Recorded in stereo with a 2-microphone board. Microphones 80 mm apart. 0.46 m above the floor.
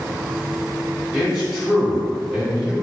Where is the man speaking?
5° right (ahead or behind), 1.9 m.